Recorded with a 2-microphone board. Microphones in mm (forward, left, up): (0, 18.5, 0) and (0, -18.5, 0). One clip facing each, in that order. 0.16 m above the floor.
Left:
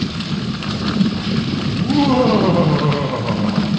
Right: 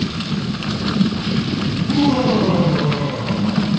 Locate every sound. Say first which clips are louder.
1.7 s laughter: left 2 dB; 40° left (ahead or behind), 7 m